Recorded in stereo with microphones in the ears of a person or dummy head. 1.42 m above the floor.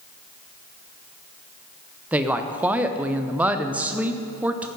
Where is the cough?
No cough in this recording.